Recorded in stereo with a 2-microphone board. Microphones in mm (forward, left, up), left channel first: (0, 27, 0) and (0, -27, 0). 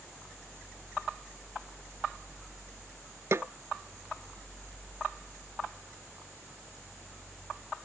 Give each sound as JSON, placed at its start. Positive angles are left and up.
{"t": 3.3, "sound": "a snare drum", "side_deg": -55}